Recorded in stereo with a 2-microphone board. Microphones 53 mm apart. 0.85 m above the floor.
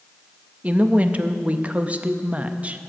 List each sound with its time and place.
0.6 s a woman speaking: 25° right (ahead or behind), 0.6 m